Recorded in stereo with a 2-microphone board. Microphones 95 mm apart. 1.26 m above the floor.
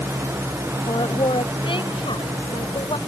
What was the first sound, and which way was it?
A woman speaking, 60° left (ahead or behind).